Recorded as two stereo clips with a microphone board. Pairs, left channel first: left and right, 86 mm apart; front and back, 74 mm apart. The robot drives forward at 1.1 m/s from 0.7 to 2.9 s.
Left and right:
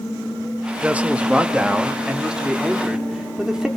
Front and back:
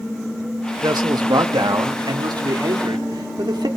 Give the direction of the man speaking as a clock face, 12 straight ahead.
5 o'clock.